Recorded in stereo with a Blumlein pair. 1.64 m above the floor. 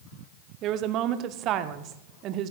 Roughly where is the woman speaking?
Ahead right.